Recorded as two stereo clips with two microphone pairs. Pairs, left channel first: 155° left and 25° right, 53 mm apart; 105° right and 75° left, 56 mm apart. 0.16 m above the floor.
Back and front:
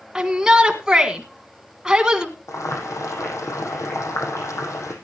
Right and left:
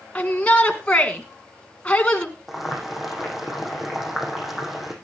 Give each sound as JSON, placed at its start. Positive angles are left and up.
{"t": 0.1, "sound": "a shout", "azimuth_deg": -85, "distance_m": 1.6}
{"t": 2.5, "sound": "boiling", "azimuth_deg": 165, "distance_m": 5.0}